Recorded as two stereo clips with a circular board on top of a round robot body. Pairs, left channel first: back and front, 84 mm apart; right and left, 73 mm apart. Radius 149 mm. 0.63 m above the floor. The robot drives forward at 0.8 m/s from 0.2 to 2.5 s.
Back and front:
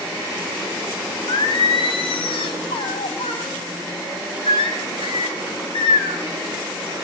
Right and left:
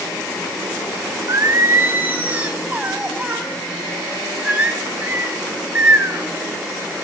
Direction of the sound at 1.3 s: 135° left.